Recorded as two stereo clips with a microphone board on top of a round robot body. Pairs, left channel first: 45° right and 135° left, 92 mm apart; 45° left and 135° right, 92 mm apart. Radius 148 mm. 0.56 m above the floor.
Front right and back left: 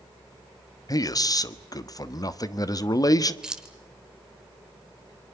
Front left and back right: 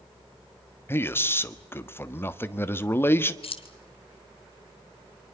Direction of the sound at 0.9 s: 15° right.